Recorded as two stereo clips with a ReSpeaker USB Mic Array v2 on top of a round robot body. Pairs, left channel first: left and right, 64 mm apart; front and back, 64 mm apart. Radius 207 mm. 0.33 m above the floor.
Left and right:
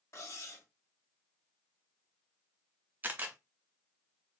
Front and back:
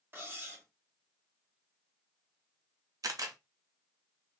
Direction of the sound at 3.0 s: 150° right.